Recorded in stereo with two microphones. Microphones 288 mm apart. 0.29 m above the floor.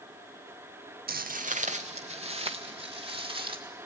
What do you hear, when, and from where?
1.1 s footsteps: 30° right (ahead or behind), 0.6 m; by 3.6 s 15° right (ahead or behind), 2.5 m